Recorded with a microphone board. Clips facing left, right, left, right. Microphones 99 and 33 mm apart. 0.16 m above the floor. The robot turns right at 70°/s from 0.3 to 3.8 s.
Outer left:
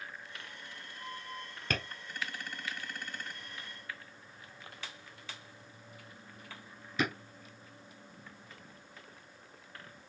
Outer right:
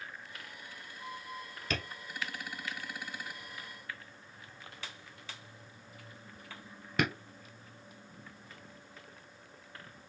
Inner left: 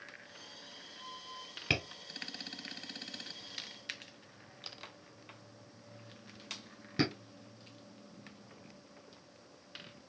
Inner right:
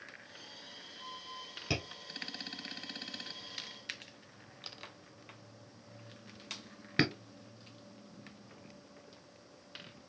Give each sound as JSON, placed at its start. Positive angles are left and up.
{"t": 1.7, "sound": "tapping", "side_deg": 50, "distance_m": 1.2}